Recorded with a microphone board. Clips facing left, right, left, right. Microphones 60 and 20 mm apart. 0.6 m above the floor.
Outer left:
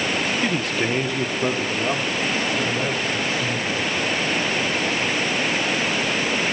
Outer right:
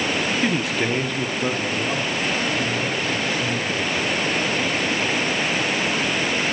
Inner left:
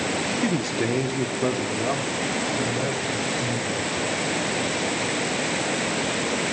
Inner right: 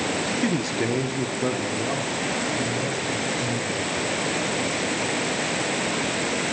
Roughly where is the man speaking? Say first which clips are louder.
Outer right 1 dB, even; centre.